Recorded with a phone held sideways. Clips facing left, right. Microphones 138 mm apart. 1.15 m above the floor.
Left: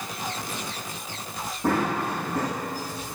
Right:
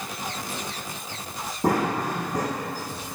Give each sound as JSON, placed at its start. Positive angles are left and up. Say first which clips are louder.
{"t": 1.6, "sound": "running footsteps", "louder": "right 1 dB", "side_deg": -45, "distance_m": 4.5}